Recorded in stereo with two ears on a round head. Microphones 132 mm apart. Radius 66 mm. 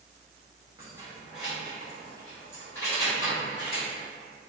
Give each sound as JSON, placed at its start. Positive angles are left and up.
{"t": 0.8, "sound": "keys jangling", "side_deg": -20, "distance_m": 1.0}